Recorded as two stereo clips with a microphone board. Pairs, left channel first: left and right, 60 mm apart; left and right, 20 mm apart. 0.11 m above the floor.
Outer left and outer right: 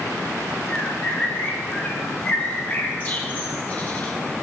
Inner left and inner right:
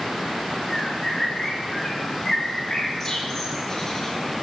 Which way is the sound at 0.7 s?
25° left (ahead or behind).